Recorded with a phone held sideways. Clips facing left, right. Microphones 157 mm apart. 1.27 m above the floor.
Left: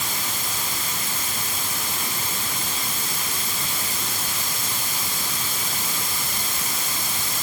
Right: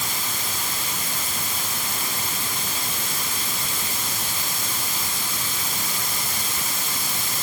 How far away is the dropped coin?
No dropped coin in this recording.